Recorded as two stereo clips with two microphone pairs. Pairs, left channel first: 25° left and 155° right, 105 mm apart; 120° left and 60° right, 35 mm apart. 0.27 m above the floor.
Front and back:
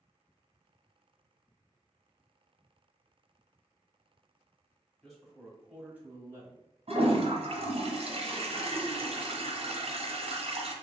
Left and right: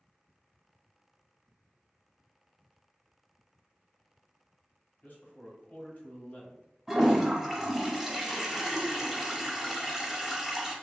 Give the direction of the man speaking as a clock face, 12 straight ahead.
8 o'clock.